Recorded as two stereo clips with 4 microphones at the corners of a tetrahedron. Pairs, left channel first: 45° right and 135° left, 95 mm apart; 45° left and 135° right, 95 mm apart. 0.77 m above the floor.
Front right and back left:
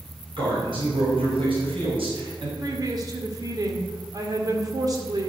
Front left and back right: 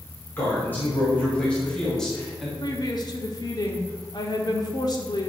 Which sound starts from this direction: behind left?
A man speaking, at 0.4 s.